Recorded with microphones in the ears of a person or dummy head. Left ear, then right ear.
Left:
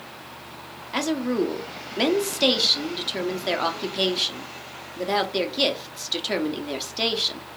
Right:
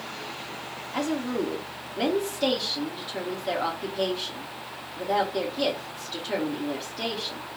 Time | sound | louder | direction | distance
0.9 | a woman speaking | left 4 dB | 30° left (ahead or behind) | 0.9 m